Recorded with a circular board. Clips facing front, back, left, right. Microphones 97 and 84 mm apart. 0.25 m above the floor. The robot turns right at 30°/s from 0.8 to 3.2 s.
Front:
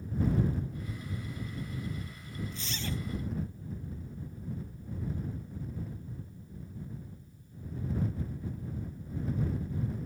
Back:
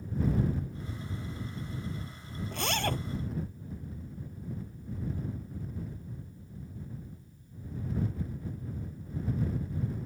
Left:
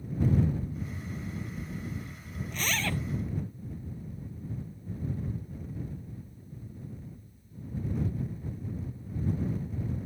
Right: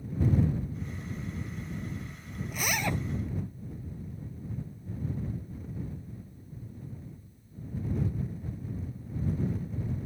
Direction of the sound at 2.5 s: 170° right.